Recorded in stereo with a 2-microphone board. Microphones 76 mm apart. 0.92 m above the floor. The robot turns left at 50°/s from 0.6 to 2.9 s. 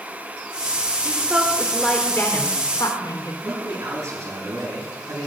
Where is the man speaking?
60° right (ahead or behind), 8 m.